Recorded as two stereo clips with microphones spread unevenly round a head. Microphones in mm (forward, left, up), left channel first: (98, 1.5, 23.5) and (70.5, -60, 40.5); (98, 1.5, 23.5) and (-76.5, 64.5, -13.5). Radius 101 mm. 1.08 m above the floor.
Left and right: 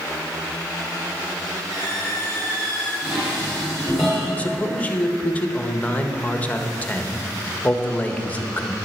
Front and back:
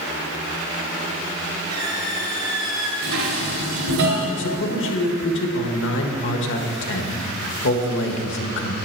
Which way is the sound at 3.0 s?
155° left.